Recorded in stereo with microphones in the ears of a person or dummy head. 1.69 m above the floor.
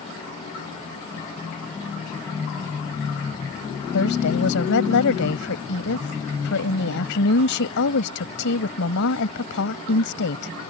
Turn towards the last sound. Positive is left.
turn(degrees=70)  # may be behind; listen again after turning